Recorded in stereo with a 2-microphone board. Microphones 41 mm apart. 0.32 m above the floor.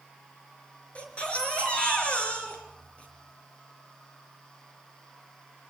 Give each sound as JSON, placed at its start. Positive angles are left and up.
{"t": 0.9, "sound": "a baby crying", "side_deg": 30, "distance_m": 4.5}